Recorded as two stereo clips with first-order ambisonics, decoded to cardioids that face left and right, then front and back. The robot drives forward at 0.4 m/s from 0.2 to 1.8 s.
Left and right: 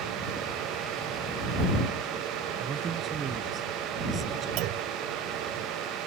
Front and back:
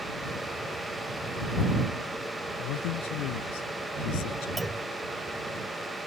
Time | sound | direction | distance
2.6 | a man speaking | 20° right | ?
4.6 | a clunk | 100° right | ?